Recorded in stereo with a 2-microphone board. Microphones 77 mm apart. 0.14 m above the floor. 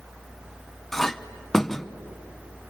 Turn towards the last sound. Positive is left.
turn(degrees=5)  # may be behind; listen again after turning